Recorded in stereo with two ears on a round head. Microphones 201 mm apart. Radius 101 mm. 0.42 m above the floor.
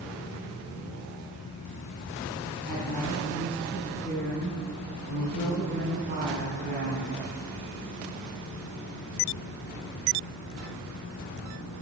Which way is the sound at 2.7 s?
35° right (ahead or behind).